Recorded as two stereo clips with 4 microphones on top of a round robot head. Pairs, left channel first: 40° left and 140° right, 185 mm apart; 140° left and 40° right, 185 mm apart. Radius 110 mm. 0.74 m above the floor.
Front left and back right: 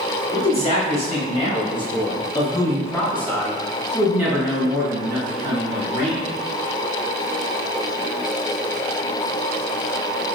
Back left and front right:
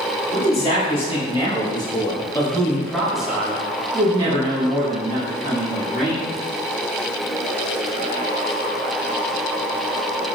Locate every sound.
0.3 s a man speaking: 90° left, 1.9 m; by 6.2 s 80° right, 1.8 m